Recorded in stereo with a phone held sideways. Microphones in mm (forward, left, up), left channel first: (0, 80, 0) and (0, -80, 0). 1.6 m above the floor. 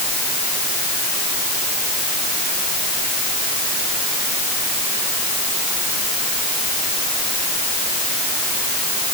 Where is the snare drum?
No snare drum in this recording.